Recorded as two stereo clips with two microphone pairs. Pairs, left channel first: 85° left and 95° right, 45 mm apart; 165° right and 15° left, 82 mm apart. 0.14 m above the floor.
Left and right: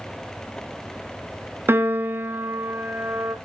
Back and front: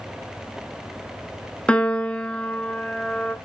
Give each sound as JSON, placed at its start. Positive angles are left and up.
{"t": 1.7, "sound": "a piano", "azimuth_deg": -90, "distance_m": 0.7}